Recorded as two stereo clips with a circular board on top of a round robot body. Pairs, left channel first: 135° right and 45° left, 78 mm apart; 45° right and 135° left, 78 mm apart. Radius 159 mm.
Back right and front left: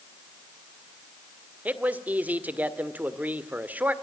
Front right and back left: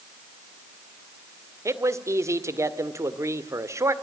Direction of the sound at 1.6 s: 105° left.